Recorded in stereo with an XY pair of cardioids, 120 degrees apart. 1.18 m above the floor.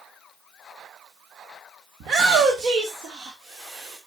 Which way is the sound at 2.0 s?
55° right.